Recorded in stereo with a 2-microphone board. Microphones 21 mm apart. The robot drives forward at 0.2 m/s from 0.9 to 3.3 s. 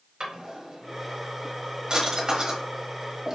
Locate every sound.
0.2 s a drawer: 40° right (ahead or behind), 1.3 m; by 3.4 s 35° right (ahead or behind), 1.5 m